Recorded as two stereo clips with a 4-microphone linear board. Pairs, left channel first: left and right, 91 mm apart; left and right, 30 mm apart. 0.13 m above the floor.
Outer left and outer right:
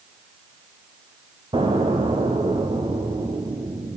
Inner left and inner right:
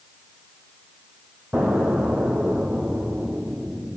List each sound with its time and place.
1.5 s an explosion: 65° right (ahead or behind), 2 m